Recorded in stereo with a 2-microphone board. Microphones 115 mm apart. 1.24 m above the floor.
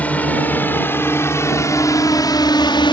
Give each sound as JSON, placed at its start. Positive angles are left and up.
{"t": 0.0, "sound": "a drone", "side_deg": 15}